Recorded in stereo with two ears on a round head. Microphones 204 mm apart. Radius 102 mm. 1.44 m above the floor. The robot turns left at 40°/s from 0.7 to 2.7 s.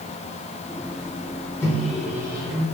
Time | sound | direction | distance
1.6 | a microwave | 10° left (ahead or behind) | 1.1 m